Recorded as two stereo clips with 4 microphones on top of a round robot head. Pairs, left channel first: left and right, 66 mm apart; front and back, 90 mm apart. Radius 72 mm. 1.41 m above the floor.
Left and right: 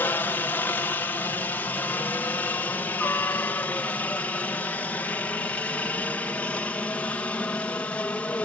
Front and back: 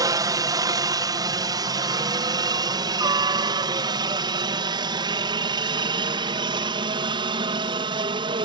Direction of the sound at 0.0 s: 145° left.